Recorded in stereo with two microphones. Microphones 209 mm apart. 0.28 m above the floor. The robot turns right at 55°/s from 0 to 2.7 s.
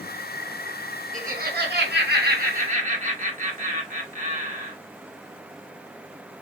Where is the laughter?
130° right, 2.5 m; by 4.8 s 45° right, 2.5 m.